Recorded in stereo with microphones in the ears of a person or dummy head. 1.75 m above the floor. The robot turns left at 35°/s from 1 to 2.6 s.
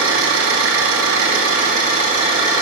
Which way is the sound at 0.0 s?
105° right.